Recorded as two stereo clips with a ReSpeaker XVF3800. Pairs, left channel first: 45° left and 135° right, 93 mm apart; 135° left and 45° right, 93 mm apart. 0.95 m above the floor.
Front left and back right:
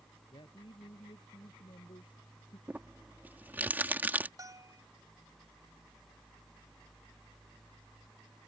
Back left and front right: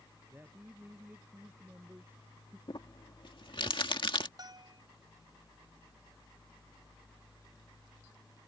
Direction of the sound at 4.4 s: 85° right.